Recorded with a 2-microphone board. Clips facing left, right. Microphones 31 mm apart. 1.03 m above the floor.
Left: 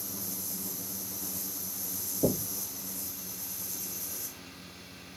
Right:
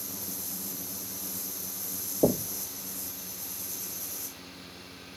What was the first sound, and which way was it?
Knocking, 45° right (ahead or behind).